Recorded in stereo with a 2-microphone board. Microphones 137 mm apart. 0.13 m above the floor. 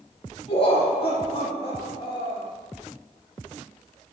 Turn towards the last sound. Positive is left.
turn(degrees=45)  # may be behind; listen again after turning